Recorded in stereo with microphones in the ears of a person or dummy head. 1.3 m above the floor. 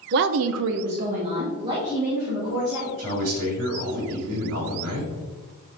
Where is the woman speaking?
50° right (ahead or behind), 0.7 m; by 2.9 s 15° right (ahead or behind), 3 m.